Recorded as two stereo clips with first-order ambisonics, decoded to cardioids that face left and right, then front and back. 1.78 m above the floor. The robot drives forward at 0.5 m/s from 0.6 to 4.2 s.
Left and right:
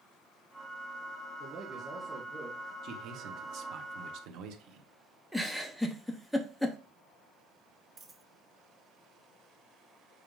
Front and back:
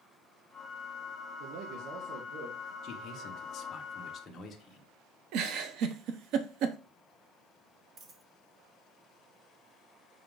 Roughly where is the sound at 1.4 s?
Behind right.